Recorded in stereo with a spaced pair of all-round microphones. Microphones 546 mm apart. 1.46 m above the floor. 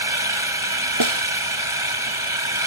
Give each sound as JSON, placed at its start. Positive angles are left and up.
{"t": 0.0, "sound": "an engine running", "side_deg": -65}
{"t": 1.0, "sound": "a snare drum", "side_deg": -60}